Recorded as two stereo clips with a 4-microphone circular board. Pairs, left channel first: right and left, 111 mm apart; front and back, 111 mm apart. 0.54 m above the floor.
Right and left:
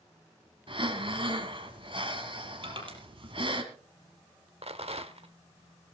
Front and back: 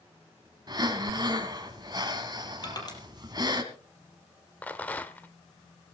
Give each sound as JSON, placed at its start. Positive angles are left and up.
{"t": 0.7, "sound": "breathing", "azimuth_deg": 130, "distance_m": 2.5}
{"t": 2.6, "sound": "crushing", "azimuth_deg": 50, "distance_m": 5.5}
{"t": 4.6, "sound": "a rattle", "azimuth_deg": 75, "distance_m": 1.2}